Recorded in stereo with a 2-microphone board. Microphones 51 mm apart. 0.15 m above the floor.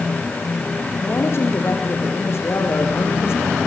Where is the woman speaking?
55° left (ahead or behind), 6.5 m.